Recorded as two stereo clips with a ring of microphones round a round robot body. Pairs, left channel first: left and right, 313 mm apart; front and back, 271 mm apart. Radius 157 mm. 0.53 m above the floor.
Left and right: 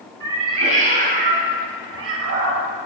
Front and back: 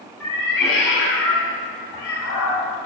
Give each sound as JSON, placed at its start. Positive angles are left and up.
{"t": 0.2, "sound": "a cat meowing", "azimuth_deg": -15, "distance_m": 2.0}